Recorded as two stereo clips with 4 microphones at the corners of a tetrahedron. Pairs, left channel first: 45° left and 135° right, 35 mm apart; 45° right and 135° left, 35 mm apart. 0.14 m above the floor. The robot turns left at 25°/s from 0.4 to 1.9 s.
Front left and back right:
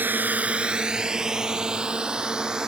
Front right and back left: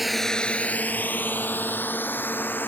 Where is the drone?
140° right; by 2.7 s 65° right.